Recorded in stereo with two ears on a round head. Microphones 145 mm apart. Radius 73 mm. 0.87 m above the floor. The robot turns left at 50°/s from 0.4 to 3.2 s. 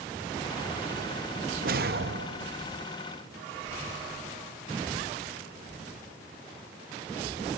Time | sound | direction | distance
1.6 | a whoosh | 60° right | 0.7 m